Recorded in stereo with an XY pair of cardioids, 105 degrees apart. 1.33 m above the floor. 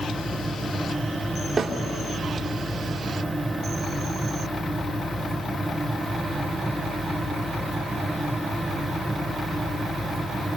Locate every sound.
0.0 s a fan: 10° right, 1.7 m
1.6 s a snare drum: 35° right, 3 m